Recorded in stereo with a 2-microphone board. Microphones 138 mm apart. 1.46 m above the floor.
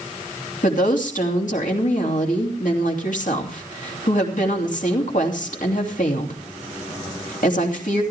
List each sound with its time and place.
0.6 s a woman speaking: 70° left (ahead or behind), 3 m